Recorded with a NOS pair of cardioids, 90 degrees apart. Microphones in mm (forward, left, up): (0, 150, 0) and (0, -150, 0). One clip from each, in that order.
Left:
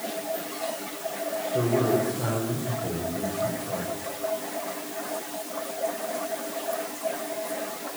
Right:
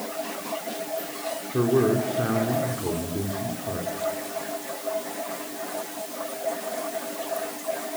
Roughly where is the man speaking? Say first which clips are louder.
Right 2 dB; ahead right.